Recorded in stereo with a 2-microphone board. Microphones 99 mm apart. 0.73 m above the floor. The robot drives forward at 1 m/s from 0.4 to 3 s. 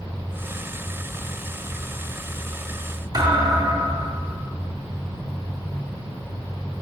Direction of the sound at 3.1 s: 40° right (ahead or behind).